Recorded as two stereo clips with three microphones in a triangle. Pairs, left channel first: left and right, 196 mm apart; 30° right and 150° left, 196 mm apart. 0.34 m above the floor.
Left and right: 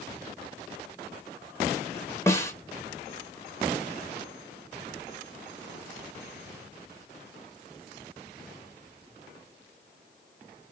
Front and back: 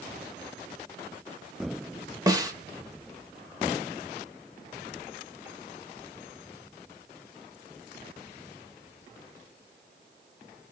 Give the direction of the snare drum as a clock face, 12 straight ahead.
8 o'clock.